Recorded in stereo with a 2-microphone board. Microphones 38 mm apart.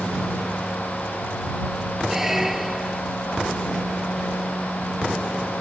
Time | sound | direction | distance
2.1 | a squeak | 10° right (ahead or behind) | ?